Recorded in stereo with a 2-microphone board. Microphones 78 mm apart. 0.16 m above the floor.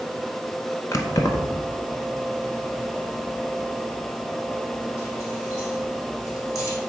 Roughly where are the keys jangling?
Left.